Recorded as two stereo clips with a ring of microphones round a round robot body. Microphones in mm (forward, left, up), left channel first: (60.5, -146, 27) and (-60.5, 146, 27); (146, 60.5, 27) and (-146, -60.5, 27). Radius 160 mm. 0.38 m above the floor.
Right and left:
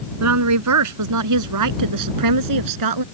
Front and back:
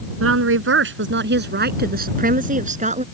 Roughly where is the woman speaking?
Behind left.